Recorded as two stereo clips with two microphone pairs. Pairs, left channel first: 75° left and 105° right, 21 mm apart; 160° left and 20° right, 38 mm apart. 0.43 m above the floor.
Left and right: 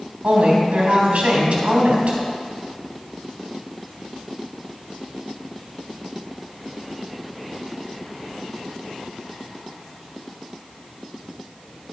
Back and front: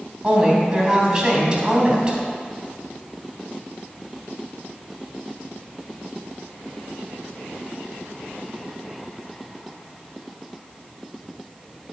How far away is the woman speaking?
About 2.5 m.